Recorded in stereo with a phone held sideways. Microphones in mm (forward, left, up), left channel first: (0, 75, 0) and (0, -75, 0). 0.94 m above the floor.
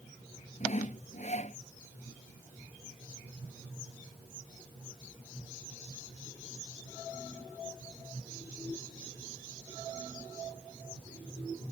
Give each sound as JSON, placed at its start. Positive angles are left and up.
{"t": 0.6, "sound": "sawing", "side_deg": 50}